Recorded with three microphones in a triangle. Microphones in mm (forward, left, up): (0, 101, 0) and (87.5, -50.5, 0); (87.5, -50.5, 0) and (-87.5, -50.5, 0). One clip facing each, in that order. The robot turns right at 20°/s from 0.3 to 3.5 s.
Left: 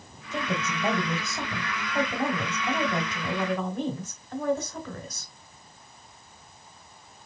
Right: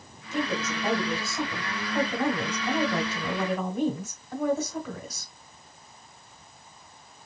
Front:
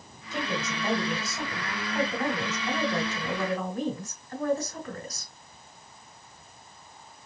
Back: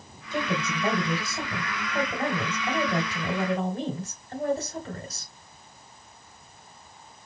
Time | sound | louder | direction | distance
0.3 | a woman speaking | right 2 dB, back 3 dB | 155° left | 1.7 m